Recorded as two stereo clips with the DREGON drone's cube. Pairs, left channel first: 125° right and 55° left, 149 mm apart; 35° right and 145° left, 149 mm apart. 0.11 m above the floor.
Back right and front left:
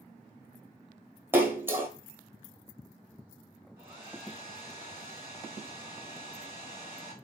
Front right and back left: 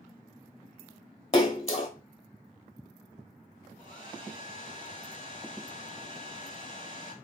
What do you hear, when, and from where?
1.3 s a splash: 15° right, 0.6 m
3.8 s a hair dryer: 120° left, 1.3 m